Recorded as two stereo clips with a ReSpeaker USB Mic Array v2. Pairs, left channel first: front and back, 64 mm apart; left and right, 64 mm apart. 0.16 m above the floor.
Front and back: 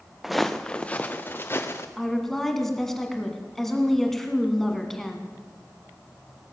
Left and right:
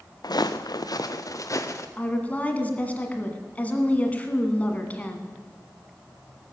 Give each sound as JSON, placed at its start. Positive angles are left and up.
{"t": 0.2, "sound": "footsteps", "azimuth_deg": 95, "distance_m": 0.8}
{"t": 2.0, "sound": "a woman speaking", "azimuth_deg": 80, "distance_m": 1.6}